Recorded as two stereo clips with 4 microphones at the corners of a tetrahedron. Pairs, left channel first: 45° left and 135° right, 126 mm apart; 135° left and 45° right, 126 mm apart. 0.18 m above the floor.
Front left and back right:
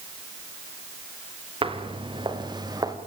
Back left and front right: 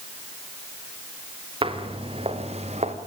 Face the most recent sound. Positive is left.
turn(degrees=-75)